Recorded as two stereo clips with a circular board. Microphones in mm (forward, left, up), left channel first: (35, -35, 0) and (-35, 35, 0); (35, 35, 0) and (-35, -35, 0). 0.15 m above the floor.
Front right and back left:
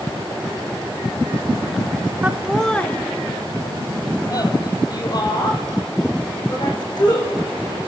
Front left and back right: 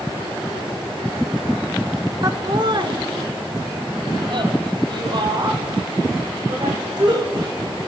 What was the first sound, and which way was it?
Laughter, 160° right.